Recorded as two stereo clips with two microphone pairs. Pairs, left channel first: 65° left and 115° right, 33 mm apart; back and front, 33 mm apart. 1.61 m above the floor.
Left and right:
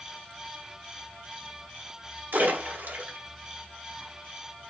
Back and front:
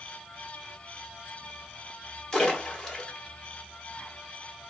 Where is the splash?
105° right, 1.9 m.